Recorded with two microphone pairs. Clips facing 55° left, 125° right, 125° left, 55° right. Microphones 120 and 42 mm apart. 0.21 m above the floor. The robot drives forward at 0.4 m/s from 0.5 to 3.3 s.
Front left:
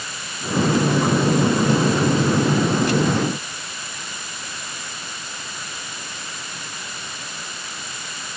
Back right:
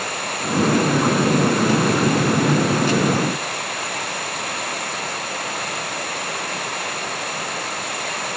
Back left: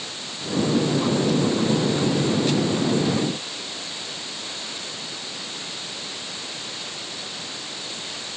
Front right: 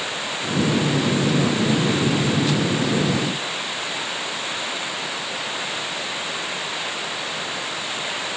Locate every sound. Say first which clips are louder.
0.0 s running water: back right 7 dB, front right 8 dB; 100° right; by 8.4 s 105° right